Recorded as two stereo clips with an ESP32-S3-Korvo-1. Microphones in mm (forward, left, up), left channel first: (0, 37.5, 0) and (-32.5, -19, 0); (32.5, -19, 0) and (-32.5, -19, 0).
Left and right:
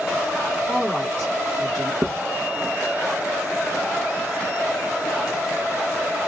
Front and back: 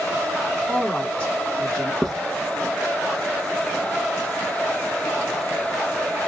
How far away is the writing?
About 0.6 m.